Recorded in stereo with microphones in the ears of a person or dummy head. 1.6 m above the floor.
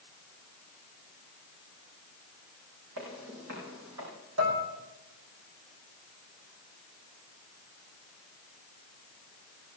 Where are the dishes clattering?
75° right (ahead or behind), 2.5 m.